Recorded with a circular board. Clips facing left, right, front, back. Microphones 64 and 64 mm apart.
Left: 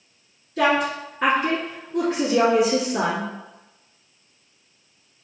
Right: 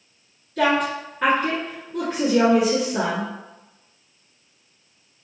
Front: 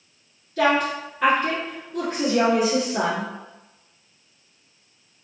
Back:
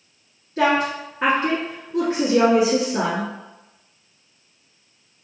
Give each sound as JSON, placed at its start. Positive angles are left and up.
{"t": 0.6, "sound": "a woman speaking", "azimuth_deg": 165, "distance_m": 1.3}